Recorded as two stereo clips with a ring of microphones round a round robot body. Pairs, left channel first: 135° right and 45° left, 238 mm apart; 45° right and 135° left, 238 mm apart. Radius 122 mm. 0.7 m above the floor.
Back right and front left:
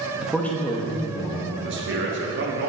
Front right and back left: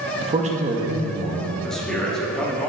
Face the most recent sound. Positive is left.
turn(degrees=40)